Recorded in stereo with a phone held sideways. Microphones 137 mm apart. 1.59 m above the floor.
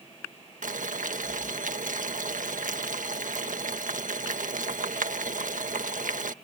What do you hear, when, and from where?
0.6 s boiling: 70° right (ahead or behind)